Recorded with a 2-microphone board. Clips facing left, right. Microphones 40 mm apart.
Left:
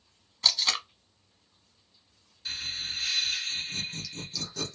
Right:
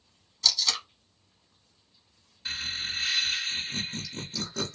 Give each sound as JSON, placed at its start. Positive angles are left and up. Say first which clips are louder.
{"t": 0.4, "sound": "tape being pulled", "louder": "left 1 dB", "side_deg": 30, "distance_m": 0.9}
{"t": 2.5, "sound": "laughter", "louder": "right 2 dB", "side_deg": -25, "distance_m": 1.2}